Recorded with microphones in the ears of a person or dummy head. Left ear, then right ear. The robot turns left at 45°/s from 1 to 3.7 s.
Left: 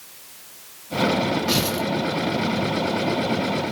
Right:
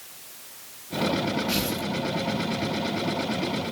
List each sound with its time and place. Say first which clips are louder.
1.5 s tearing paper: left 5 dB; 75° left (ahead or behind), 5.5 m